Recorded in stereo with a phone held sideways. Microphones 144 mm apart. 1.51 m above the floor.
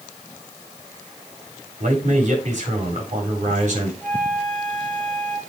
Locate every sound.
1.8 s a man speaking: 55° right (ahead or behind), 4 m
4.0 s a flute: 5° left (ahead or behind), 3 m